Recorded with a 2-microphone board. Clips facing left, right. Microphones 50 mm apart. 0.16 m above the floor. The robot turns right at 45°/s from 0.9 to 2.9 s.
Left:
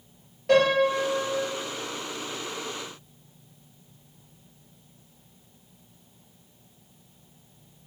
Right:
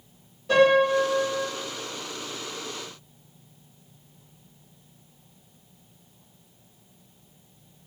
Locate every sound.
0.5 s a piano: 70° left (ahead or behind), 1.8 m; by 1.5 s 60° left (ahead or behind), 1.8 m